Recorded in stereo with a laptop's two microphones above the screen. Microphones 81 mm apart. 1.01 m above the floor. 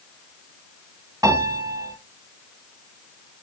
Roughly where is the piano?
Right.